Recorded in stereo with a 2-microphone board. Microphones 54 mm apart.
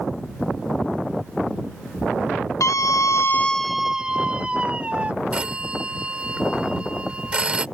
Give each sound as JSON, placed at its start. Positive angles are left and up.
{"t": 2.6, "sound": "a scream", "side_deg": 75}
{"t": 5.3, "sound": "a phone ringing", "side_deg": -25}